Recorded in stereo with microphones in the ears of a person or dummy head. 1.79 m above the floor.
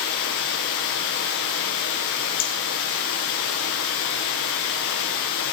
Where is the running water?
45° left (ahead or behind), 1.0 m.